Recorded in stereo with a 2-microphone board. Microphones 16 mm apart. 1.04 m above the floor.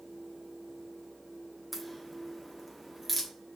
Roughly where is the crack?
Centre.